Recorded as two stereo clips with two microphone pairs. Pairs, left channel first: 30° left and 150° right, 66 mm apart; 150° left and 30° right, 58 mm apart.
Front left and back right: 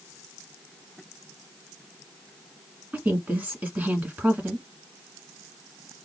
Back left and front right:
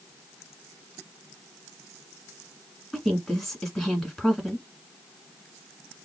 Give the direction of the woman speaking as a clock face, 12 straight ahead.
4 o'clock.